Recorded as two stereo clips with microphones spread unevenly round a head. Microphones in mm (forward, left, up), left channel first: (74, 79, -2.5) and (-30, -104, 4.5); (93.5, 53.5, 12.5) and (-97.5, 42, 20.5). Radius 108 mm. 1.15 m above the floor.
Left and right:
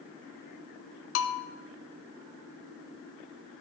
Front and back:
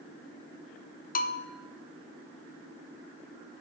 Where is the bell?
45° left, 0.7 m.